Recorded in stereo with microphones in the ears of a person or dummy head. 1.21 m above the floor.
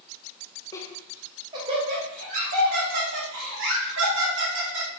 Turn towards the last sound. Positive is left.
turn(degrees=-70)  # may be behind; listen again after turning